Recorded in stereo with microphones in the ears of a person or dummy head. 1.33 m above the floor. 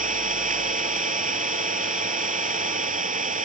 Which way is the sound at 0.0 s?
40° right (ahead or behind).